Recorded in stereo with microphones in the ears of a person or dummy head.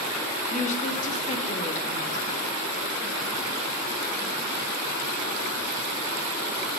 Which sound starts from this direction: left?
A woman speaking, at 0.5 s.